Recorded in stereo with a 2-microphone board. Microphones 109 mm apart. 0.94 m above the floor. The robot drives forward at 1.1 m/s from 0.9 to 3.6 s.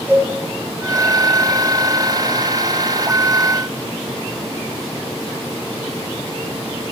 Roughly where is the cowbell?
Centre.